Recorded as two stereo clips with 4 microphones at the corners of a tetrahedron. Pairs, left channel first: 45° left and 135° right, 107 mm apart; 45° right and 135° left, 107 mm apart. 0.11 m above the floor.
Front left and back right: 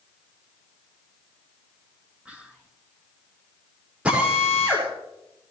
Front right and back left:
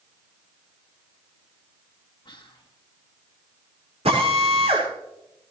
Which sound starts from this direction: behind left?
A drill, at 4.0 s.